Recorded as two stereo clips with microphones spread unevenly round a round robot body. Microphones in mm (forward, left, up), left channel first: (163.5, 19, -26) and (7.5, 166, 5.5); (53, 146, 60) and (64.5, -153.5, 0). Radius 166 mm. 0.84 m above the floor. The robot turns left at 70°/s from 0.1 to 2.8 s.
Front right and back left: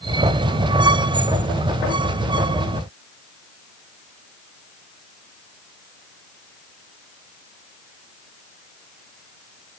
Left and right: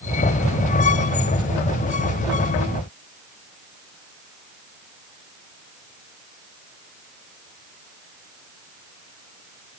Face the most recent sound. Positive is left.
No sound to turn to.